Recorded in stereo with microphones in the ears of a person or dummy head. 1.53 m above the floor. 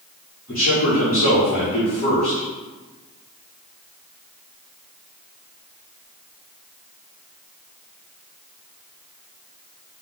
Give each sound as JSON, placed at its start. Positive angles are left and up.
{"t": 0.5, "sound": "a man speaking", "side_deg": 55, "distance_m": 1.6}